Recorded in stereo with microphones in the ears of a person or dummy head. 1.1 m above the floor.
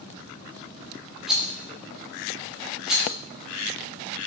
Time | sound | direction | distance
1.3 | a rattle | 5° right (ahead or behind) | 2.5 m